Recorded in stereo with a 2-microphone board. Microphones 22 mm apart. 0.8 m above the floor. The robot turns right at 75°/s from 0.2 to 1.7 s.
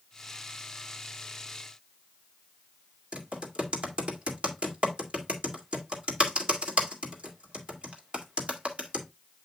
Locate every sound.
3.1 s typing on a keyboard: 60° right (ahead or behind), 2 m